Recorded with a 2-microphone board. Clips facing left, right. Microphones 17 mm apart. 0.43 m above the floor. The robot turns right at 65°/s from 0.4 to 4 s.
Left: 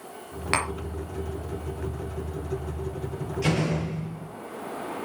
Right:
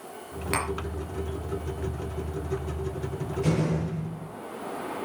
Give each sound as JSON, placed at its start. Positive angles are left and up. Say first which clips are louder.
{"t": 0.5, "sound": "tapping", "louder": "left 3 dB", "side_deg": 25, "distance_m": 2.0}
{"t": 3.4, "sound": "a door slam", "louder": "left 1 dB", "azimuth_deg": 95, "distance_m": 7.5}